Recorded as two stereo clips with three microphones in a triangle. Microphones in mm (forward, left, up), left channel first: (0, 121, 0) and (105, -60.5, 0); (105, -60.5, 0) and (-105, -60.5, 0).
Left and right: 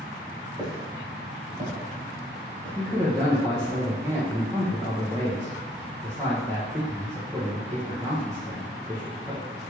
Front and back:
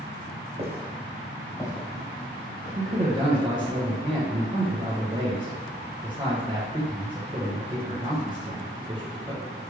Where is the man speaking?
125° right, 1.0 m.